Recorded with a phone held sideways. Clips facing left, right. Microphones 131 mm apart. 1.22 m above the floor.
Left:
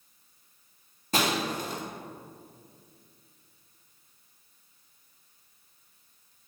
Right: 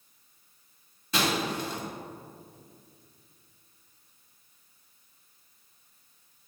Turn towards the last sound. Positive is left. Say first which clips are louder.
# even
turn(degrees=45)  # may be behind; listen again after turning